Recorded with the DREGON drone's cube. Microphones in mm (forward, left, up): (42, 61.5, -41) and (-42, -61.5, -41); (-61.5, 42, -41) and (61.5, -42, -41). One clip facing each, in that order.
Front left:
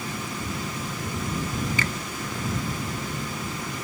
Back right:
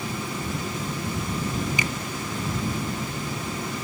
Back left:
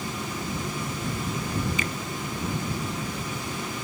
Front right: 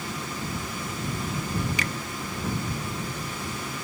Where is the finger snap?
50° right.